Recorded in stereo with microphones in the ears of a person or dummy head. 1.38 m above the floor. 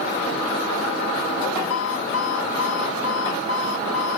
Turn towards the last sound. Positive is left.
turn(degrees=80)